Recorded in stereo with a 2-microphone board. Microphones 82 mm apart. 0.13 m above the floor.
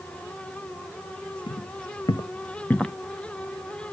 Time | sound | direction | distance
1.5 | footsteps | 85° left | 1.4 m